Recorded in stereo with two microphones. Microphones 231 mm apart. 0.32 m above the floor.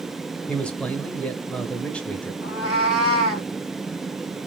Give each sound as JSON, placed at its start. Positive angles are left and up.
{"t": 0.5, "sound": "a man speaking", "side_deg": 5, "distance_m": 0.9}
{"t": 2.4, "sound": "a cat meowing", "side_deg": 85, "distance_m": 1.2}